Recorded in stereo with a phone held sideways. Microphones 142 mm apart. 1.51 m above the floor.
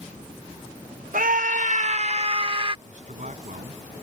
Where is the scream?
80° right; by 2.8 s 35° right (ahead or behind).